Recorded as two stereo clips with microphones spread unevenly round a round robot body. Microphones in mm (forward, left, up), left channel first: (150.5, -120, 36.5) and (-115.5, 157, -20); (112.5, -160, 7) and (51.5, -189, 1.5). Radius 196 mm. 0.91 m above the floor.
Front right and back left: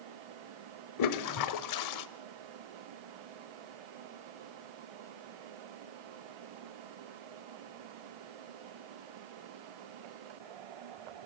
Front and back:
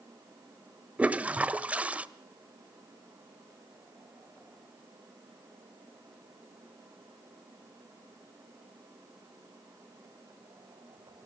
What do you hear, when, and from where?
1.0 s a toilet flushing: 80° right, 1.3 m